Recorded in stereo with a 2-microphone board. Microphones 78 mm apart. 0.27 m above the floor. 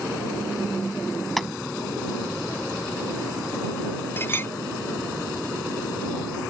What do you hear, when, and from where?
1.4 s tapping: 5° left (ahead or behind)
4.2 s a clink: 30° left (ahead or behind)